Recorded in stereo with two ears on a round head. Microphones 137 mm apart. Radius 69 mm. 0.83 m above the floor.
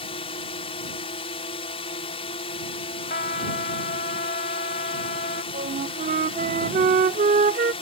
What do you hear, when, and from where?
0.0 s a drone: 40° left (ahead or behind)
3.1 s a trumpet: 55° left (ahead or behind)
5.5 s a flute: 50° right (ahead or behind)